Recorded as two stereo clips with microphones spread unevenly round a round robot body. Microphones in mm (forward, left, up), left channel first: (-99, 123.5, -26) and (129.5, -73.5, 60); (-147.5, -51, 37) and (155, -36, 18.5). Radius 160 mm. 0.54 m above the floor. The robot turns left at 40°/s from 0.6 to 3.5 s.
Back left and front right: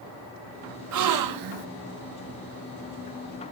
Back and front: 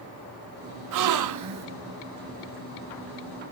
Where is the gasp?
Straight ahead, 0.8 m; by 1.7 s 30° right, 0.8 m.